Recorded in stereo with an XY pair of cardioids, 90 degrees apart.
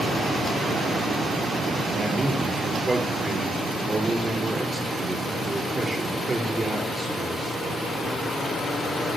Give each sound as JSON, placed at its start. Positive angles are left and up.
{"t": 1.9, "sound": "a man speaking", "azimuth_deg": -25, "distance_m": 4.5}